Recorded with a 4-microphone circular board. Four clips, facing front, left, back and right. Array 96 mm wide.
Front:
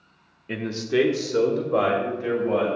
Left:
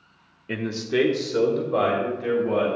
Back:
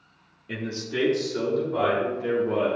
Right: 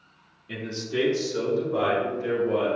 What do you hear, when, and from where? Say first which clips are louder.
0.5 s a man speaking: left 6 dB, front 6 dB; 65° left, 1.0 m; by 2.7 s 20° left, 4 m